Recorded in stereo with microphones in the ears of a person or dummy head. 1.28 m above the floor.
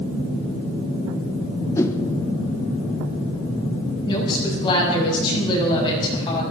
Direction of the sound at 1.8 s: 15° left (ahead or behind).